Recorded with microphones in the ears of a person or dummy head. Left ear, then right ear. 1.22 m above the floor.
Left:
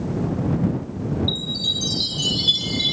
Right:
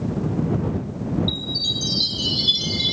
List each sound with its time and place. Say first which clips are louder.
1.3 s a chime: left 1 dB; 10° left (ahead or behind)